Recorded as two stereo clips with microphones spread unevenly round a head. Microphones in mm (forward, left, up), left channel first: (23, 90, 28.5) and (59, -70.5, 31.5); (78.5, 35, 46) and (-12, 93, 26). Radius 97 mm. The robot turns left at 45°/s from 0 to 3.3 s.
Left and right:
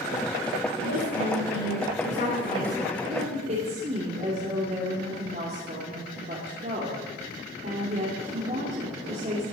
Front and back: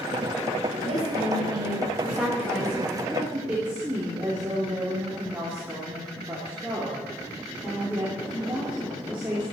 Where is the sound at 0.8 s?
135° left, 7 m; by 2.8 s 45° left, 7 m.